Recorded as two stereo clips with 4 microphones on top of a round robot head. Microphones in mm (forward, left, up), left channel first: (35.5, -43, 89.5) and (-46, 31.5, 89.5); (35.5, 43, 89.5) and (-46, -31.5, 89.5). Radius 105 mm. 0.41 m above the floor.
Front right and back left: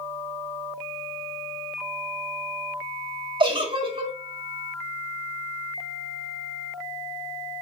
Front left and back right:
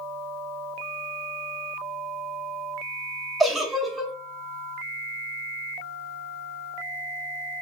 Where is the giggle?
130° left, 0.9 m.